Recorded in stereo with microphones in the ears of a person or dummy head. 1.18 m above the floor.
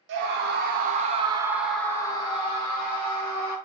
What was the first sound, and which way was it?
A scream, 70° right (ahead or behind).